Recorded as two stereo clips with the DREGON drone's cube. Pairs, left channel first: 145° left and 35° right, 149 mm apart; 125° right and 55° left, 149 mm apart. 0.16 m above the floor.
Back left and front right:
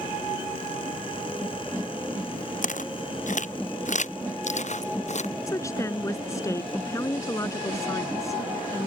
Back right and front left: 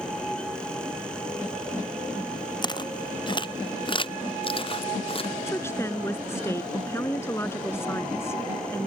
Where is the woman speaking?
175° right.